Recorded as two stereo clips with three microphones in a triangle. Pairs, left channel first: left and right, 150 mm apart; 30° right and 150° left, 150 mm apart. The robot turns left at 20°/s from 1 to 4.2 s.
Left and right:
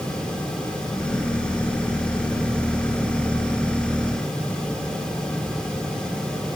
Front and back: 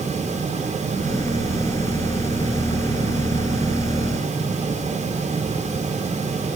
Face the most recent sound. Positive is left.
No sound to turn to.